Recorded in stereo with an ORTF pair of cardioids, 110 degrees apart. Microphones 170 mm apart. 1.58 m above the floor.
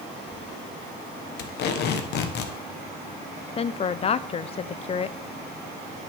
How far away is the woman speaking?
About 0.6 m.